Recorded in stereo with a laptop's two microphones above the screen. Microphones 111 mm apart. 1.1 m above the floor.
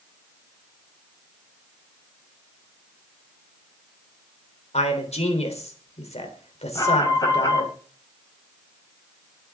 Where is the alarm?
35° left (ahead or behind), 4 m.